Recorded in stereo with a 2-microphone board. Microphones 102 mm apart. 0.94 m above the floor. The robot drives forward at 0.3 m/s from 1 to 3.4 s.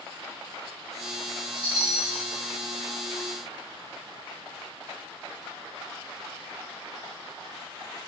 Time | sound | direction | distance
1.6 | a chime | 45° right (ahead or behind) | 2 m